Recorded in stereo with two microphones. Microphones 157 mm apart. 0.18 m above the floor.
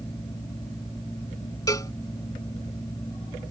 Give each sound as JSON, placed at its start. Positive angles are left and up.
{"t": 1.7, "sound": "a cowbell", "side_deg": 25}